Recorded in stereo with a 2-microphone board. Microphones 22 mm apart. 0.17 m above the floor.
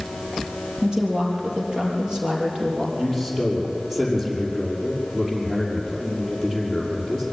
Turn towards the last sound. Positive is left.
turn(degrees=-15)  # may be behind; listen again after turning